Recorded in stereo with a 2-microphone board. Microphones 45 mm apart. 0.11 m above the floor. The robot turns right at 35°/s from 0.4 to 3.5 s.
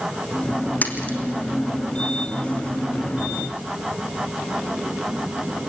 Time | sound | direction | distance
0.8 | a splash | 45° left (ahead or behind) | 1.7 m